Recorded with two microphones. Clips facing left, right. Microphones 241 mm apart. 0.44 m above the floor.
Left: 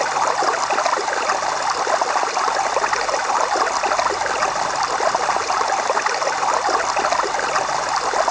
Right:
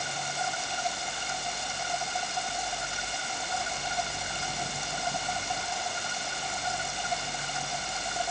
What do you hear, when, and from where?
0.0 s running water: 85° left